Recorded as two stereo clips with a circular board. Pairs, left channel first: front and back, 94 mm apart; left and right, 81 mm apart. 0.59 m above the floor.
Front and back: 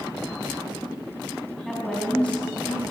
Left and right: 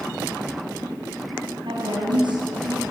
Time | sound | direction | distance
1.6 | a woman speaking | 85° right | 4.5 m